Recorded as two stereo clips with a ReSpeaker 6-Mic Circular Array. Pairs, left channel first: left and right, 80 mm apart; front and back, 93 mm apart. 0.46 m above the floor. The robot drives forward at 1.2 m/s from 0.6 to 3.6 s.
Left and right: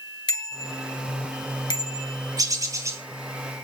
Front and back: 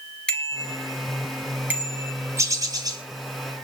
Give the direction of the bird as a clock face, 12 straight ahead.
4 o'clock.